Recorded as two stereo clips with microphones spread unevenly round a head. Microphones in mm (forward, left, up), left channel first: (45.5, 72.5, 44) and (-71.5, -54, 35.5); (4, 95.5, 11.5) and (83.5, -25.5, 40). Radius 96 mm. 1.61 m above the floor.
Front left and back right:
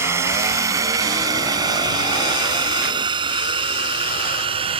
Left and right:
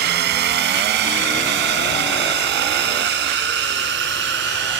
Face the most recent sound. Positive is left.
turn(degrees=-70)